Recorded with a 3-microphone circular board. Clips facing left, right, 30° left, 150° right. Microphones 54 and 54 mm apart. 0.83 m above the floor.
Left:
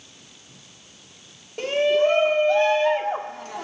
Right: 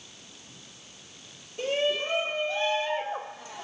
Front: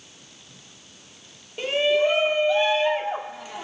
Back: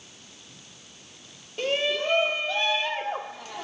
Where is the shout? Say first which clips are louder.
Left 8 dB, front 5 dB; 105° left, 2 m.